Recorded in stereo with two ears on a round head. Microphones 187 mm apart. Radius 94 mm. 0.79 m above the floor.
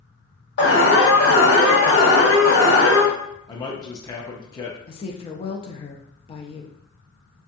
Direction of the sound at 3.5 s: 20° left (ahead or behind).